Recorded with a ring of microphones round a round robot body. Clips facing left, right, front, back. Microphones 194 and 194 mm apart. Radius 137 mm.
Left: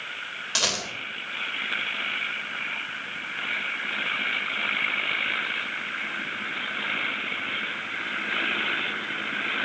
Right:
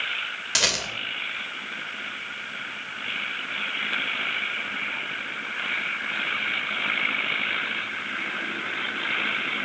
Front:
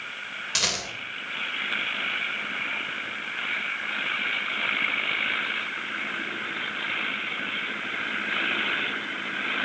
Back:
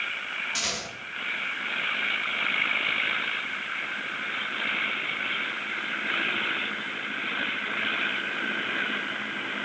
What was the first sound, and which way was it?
A rattle, 20° right.